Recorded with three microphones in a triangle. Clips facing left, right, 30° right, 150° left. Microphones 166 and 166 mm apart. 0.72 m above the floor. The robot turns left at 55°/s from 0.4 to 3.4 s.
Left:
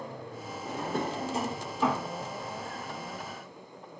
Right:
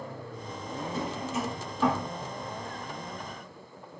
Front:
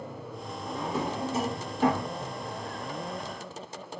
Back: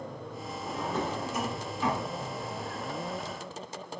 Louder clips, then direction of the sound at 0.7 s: Left 2 dB, front 1 dB; 70° left.